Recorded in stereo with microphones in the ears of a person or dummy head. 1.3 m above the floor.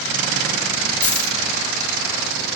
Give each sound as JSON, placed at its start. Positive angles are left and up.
{"t": 1.0, "sound": "a dropped coin", "side_deg": 15, "distance_m": 1.9}